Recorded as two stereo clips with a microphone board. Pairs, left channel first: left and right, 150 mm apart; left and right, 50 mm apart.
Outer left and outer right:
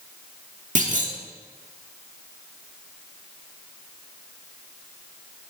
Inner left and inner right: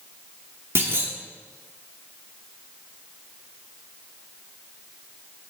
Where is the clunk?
60° right (ahead or behind), 1.5 m.